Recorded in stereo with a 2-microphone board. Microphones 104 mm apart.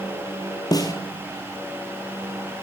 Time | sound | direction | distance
0.7 | a snare drum | 35° left (ahead or behind) | 1.0 m